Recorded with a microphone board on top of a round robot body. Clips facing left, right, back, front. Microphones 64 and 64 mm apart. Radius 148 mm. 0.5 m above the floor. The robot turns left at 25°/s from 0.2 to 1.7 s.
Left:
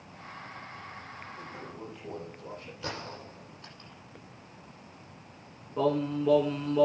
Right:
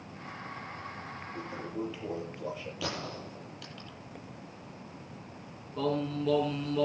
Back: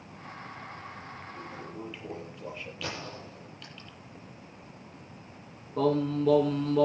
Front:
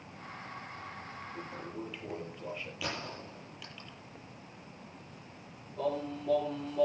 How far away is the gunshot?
About 9.5 m.